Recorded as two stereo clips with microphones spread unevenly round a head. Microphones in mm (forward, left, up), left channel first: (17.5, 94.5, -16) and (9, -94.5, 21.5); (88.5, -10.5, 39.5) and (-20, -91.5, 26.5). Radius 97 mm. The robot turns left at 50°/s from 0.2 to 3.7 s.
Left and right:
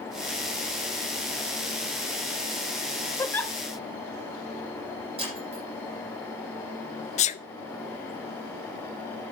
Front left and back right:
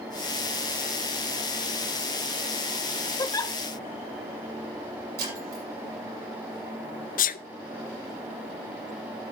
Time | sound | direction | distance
3.2 | a giggle | 5° left | 0.7 m
5.2 | breaking glass | 155° right | 8 m
7.2 | a sneeze | 45° left | 0.6 m